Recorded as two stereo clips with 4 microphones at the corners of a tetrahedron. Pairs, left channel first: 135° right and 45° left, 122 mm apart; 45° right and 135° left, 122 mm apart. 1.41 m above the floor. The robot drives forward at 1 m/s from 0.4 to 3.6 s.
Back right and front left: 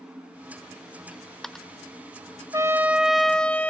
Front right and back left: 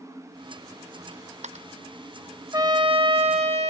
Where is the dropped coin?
135° left; by 1.7 s 140° left.